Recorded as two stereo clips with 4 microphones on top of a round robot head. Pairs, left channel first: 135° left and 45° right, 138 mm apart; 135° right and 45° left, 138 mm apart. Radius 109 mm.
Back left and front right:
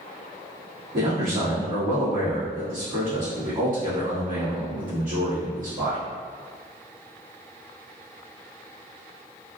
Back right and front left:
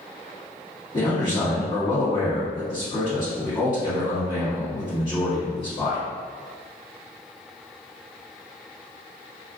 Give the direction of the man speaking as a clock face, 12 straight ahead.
3 o'clock.